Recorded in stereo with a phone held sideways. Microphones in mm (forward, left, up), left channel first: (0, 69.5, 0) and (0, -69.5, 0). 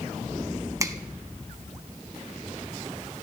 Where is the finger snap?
25° right (ahead or behind), 0.6 m.